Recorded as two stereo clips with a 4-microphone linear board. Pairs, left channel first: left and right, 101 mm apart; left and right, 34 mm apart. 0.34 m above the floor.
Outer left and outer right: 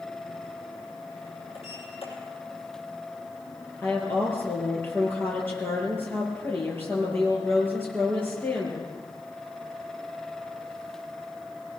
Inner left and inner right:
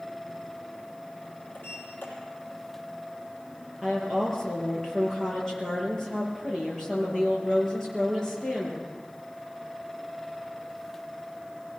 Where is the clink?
I don't hear a clink.